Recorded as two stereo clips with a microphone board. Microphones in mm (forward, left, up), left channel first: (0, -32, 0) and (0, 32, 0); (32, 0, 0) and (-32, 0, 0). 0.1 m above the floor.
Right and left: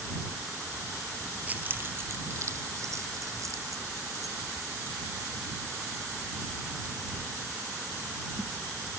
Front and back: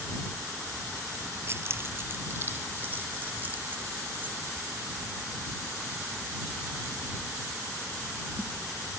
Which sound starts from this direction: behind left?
Keys jangling, at 1.5 s.